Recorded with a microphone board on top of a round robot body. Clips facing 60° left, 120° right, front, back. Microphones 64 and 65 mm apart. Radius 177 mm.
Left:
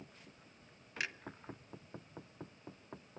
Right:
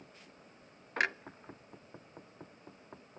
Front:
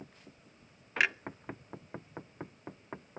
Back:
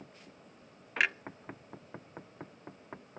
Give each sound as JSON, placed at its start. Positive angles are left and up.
{"t": 1.0, "sound": "a clunk", "azimuth_deg": -90, "distance_m": 0.6}